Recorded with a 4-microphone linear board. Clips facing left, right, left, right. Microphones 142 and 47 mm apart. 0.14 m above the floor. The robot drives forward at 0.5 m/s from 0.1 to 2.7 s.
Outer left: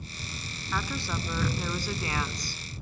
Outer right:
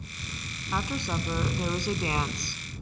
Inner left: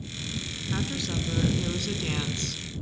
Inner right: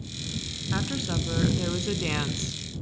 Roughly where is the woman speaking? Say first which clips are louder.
Outer right 2 dB, inner right 2 dB; centre.